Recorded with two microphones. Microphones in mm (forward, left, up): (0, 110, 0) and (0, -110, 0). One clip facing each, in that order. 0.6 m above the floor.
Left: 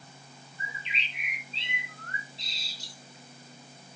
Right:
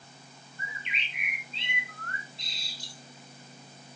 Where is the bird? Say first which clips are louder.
Even; 55° right (ahead or behind), 3 m.